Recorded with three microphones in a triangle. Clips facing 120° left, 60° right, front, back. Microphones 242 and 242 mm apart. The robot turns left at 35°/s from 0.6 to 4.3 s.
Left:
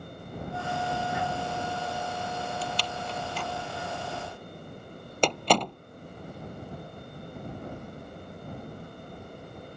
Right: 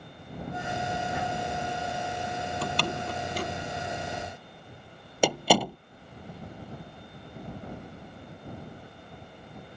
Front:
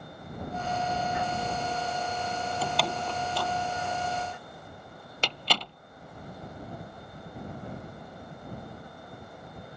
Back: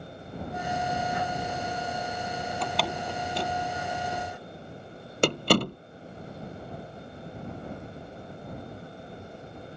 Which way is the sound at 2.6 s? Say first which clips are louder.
Right 3 dB, even; 85° right.